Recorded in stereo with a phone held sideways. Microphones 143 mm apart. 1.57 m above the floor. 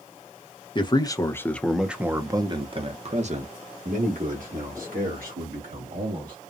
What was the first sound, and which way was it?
A man speaking, 35° left (ahead or behind).